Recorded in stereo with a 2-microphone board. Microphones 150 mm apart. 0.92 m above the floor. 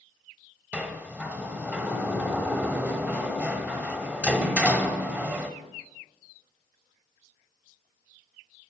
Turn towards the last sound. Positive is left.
turn(degrees=-10)  # may be behind; listen again after turning